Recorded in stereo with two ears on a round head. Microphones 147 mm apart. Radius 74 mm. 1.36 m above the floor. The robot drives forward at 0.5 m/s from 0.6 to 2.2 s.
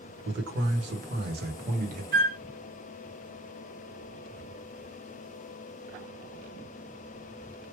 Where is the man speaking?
85° right, 1.2 m; by 2.0 s 55° right (ahead or behind), 1.5 m.